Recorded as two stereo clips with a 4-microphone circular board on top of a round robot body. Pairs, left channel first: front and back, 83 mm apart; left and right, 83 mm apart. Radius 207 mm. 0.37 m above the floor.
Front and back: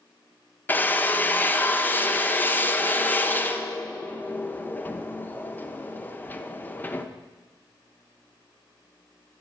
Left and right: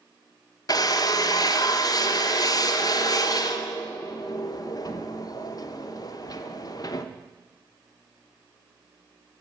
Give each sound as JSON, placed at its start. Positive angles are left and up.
{"t": 0.7, "sound": "a drill", "azimuth_deg": 65, "distance_m": 1.1}